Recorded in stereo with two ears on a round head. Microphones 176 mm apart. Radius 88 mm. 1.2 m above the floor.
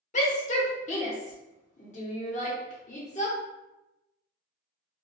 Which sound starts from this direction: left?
A shout, at 0.1 s.